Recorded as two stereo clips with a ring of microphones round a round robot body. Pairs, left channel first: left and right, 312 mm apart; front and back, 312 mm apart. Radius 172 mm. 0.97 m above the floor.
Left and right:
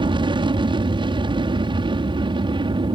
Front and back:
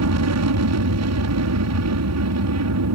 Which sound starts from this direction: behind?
An aircraft, at 0.0 s.